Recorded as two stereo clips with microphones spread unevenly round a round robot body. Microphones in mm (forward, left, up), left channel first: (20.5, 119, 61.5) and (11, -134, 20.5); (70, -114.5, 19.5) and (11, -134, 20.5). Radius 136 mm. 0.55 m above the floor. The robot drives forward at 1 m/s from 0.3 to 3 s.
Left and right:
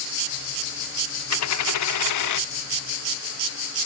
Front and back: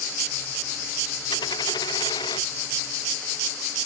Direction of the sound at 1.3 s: 60° left.